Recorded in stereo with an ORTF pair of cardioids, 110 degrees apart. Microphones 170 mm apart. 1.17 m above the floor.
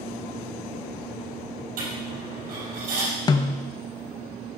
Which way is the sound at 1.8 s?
60° right.